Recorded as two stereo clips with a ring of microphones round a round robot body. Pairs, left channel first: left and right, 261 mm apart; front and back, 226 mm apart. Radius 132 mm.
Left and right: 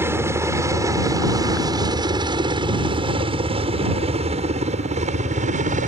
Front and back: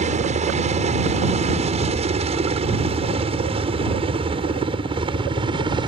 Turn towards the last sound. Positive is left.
turn(degrees=-125)